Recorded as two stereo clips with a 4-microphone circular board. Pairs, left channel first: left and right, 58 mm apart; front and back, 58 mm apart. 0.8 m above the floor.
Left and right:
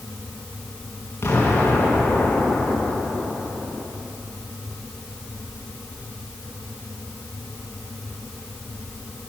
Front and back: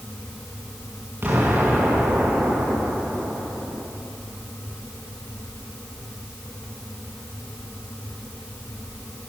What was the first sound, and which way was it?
An explosion, 135° left.